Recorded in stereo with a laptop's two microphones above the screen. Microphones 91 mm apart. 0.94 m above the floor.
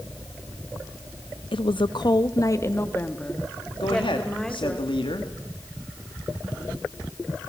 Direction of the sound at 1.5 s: 70° left (ahead or behind).